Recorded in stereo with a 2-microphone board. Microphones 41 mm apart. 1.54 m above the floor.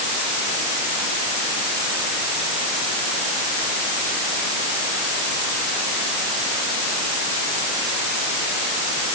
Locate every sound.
Only background noise.